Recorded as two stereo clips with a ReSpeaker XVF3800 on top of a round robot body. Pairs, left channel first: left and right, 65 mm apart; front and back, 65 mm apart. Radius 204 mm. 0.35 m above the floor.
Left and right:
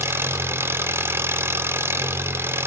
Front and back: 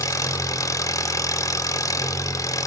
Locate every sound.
0.0 s an engine running: 35° right, 0.8 m